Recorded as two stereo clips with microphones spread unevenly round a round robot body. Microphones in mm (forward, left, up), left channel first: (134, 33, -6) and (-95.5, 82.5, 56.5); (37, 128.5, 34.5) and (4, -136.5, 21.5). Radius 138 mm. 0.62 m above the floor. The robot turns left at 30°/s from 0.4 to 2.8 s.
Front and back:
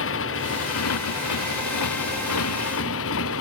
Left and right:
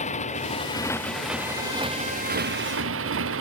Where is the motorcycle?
20° left; by 3.4 s 55° right.